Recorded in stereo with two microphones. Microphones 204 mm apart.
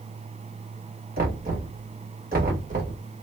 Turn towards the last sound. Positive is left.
turn(degrees=-40)  # may be behind; listen again after turning